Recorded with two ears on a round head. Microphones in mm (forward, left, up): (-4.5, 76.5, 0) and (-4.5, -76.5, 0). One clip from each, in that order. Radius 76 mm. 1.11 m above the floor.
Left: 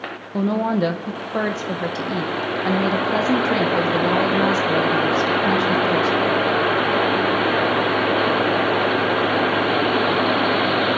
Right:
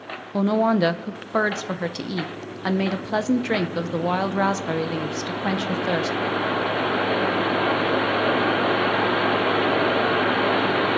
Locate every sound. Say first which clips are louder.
0.3 s a woman speaking: right 1 dB; 30° right (ahead or behind), 0.6 m